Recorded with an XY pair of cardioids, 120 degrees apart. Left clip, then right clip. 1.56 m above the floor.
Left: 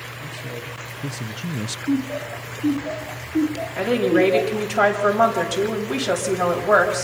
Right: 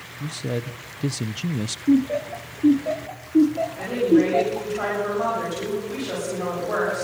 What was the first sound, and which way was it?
A man speaking, 55° right.